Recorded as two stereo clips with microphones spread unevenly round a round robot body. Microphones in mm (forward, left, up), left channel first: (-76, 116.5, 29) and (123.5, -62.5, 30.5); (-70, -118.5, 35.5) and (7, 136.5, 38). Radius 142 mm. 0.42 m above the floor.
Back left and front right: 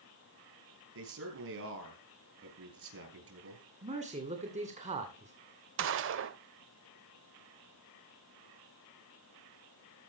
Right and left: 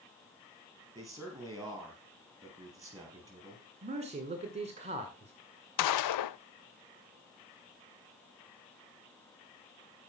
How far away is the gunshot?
About 0.5 m.